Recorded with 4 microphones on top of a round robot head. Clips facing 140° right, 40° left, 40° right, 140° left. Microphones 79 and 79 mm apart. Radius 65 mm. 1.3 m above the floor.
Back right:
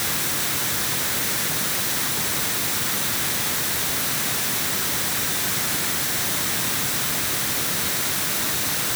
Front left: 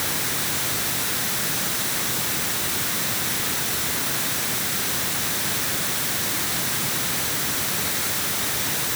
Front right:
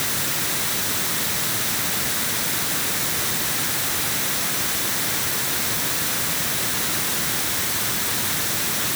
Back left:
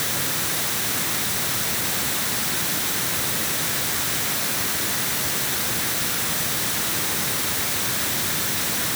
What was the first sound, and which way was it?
Only background noise.